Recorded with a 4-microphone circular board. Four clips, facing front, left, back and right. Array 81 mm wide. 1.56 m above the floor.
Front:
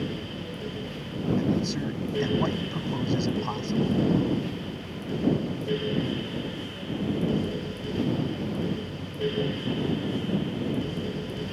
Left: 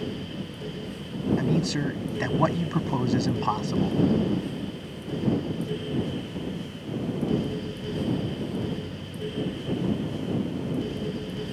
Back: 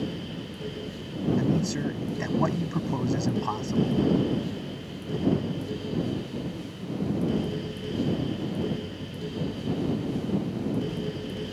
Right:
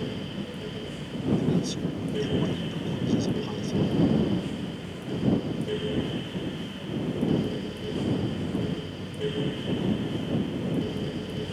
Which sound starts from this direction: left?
A man speaking, at 1.4 s.